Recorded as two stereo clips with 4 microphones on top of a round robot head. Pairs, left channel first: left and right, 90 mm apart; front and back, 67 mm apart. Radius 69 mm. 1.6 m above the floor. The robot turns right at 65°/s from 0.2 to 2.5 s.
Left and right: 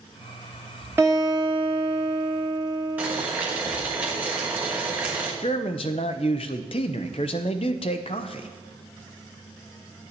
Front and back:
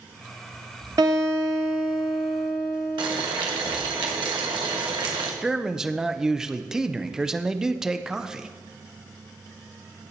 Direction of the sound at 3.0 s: 165° right.